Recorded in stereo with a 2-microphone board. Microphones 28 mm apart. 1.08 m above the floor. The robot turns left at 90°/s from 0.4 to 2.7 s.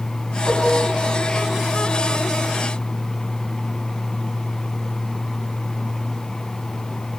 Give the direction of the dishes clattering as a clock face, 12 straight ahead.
8 o'clock.